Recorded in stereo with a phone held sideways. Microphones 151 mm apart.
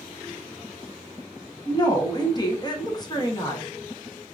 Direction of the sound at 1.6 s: 25° left (ahead or behind).